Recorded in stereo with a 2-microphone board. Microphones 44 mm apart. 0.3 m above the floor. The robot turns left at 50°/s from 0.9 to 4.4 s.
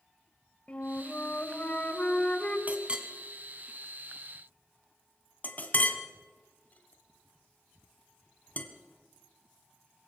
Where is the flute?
120° left, 1.7 m; by 2.6 s 40° left, 1.7 m.